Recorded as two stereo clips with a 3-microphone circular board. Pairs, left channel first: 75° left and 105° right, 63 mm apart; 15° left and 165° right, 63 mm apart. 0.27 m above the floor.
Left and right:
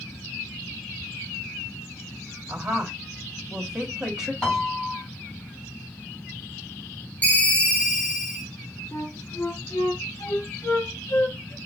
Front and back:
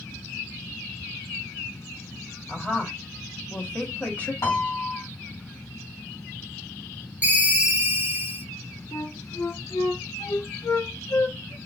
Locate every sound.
2.5 s a woman speaking: 30° right, 1.6 m
4.4 s a piano: 5° right, 2 m
7.2 s a ringtone: 135° left, 1.4 m
8.9 s a flute: 40° left, 0.6 m